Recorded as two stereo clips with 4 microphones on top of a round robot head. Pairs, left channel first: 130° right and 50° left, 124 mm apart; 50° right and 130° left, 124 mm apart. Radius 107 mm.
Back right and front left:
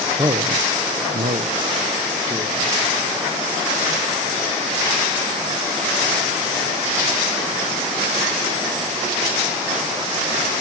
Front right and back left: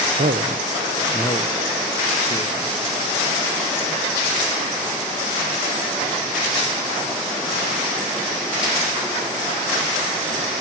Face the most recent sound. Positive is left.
turn(degrees=-10)